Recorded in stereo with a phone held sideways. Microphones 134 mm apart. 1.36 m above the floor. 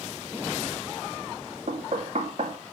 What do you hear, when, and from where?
1.7 s knocking: 60° right (ahead or behind), 1.7 m